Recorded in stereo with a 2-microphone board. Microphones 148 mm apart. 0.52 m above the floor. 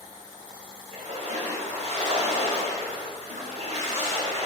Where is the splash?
45° right (ahead or behind), 3 m.